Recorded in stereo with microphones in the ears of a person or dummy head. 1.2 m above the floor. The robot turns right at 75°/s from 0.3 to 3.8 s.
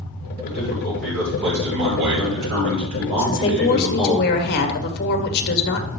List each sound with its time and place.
0.4 s a man speaking: 125° left, 6 m; by 4.2 s 20° left, 6 m
3.2 s a woman speaking: 10° left, 1.8 m; by 5.9 s 55° left, 1.8 m